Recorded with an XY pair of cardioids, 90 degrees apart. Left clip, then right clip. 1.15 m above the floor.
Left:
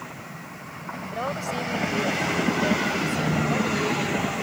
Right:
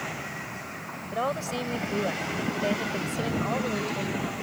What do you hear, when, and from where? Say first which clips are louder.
1.1 s a woman speaking: even; 10° right